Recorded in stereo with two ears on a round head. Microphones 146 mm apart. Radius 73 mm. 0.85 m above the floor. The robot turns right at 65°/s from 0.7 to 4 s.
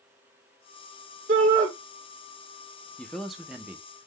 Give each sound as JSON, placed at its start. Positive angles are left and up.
{"t": 1.3, "sound": "a shout", "side_deg": -50, "distance_m": 1.5}
{"t": 3.0, "sound": "a man speaking", "side_deg": 5, "distance_m": 0.5}